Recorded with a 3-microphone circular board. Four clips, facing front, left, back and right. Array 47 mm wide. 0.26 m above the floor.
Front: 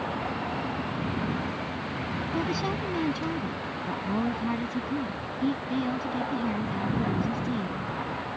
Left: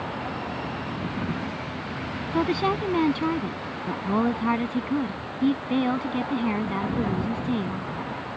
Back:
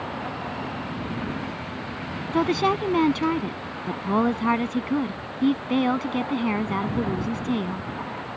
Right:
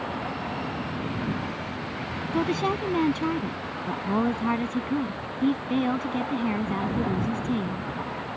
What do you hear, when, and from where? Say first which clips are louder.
2.3 s a woman speaking: left 2 dB, back 9 dB; 165° left